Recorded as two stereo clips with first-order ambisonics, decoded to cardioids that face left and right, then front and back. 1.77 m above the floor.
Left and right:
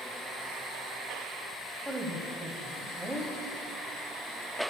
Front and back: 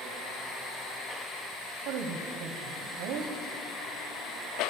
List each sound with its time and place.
1.9 s a woman speaking: 175° right, 1.0 m